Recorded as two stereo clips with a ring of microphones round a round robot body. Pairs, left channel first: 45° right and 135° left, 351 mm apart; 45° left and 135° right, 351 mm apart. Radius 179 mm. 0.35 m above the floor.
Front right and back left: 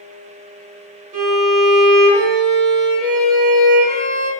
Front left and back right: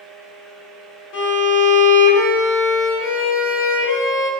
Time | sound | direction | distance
1.1 | a violin | 75° left | 0.7 m